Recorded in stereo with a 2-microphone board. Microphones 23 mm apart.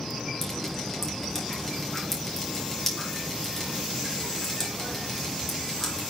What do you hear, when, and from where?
0.4 s dripping: 15° left (ahead or behind), 3.5 m